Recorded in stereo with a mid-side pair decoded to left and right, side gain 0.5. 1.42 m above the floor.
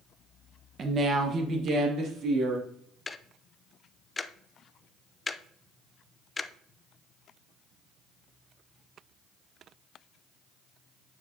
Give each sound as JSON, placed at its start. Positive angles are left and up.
{"t": 0.8, "sound": "a woman speaking", "azimuth_deg": -40, "distance_m": 1.3}
{"t": 3.1, "sound": "ticking", "azimuth_deg": 20, "distance_m": 0.6}